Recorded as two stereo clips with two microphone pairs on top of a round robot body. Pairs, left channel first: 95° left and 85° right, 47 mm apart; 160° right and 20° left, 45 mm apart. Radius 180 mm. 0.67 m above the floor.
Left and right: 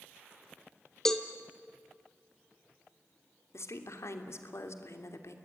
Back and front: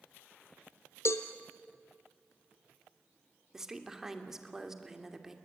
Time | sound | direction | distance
1.1 | a cowbell | straight behind | 0.6 m
3.5 | a woman speaking | 95° left | 3 m